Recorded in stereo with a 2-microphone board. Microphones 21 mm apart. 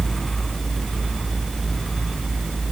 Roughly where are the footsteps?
I don't hear footsteps.